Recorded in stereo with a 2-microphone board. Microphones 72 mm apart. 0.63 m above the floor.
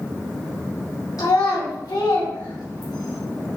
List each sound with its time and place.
1.2 s a child speaking: 80° left, 2.5 m